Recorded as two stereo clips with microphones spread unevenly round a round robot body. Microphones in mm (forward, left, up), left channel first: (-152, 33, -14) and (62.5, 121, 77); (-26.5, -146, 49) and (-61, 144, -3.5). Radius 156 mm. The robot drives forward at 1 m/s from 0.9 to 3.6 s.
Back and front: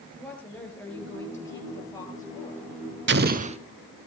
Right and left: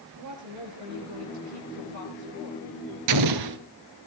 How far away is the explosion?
About 1.1 m.